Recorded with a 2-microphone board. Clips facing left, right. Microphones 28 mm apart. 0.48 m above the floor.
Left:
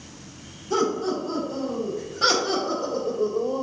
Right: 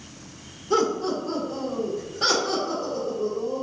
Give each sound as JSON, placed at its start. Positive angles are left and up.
{"t": 0.7, "sound": "laughter", "side_deg": -30, "distance_m": 1.3}